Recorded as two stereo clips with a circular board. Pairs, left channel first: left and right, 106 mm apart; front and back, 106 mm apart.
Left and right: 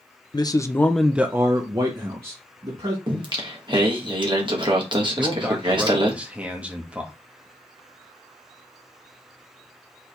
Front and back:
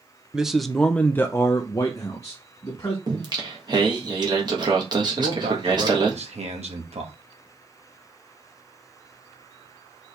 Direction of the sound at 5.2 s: 170° right.